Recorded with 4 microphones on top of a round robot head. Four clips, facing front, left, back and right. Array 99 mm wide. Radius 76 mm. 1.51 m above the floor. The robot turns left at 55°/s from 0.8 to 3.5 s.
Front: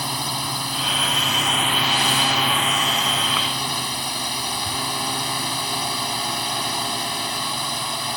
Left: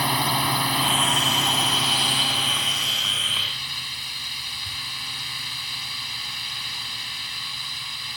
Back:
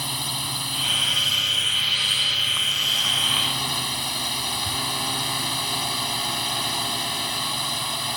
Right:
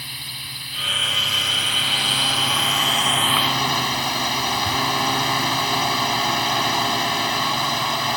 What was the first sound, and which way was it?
A drone, 70° left.